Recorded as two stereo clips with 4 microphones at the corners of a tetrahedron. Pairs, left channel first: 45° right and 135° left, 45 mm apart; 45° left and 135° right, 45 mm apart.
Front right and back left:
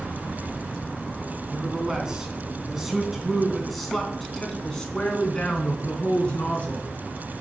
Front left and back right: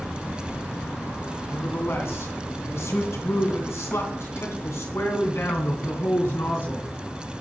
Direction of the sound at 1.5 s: 65° left.